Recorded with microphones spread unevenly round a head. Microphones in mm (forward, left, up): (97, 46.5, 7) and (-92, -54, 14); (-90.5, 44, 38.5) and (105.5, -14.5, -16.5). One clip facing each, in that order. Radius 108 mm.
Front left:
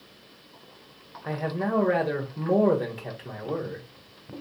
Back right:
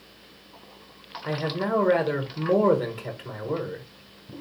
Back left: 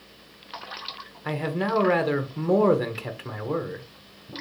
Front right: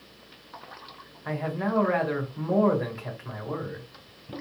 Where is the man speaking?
120° left, 1.0 m.